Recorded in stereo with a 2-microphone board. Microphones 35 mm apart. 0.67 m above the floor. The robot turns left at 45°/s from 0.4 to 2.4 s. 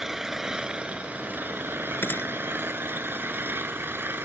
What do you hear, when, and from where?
0.0 s an engine running: 10° right; by 4.3 s 100° right
2.0 s a gunshot: 80° left; by 2.3 s 85° left